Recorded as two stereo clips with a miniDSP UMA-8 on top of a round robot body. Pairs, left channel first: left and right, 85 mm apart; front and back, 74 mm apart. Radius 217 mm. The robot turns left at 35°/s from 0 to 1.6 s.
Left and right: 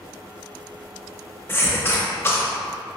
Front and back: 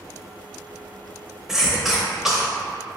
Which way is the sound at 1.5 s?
100° left.